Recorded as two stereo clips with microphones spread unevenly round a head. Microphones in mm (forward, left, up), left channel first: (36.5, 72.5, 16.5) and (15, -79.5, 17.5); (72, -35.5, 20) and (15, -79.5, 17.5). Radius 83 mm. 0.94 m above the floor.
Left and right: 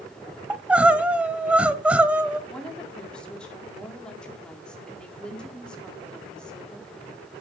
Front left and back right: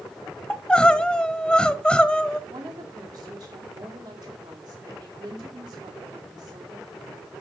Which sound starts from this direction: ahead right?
Crying, at 0.5 s.